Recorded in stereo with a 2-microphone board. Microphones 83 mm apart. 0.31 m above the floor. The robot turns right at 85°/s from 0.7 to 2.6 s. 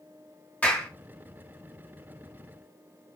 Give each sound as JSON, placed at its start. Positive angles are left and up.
{"t": 0.6, "sound": "a clap", "side_deg": 20, "distance_m": 0.8}